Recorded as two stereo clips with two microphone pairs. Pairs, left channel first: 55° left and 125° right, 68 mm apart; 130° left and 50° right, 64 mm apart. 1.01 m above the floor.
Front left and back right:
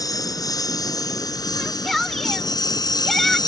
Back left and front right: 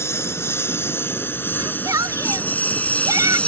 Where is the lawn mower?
80° left; by 3.5 s 60° left.